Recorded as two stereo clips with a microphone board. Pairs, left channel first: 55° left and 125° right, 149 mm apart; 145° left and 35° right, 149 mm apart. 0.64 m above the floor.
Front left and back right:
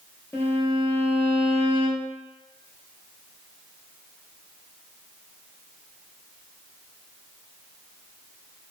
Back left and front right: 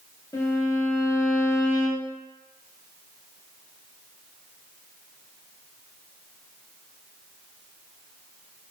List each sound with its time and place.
0.3 s a violin: 115° left, 0.7 m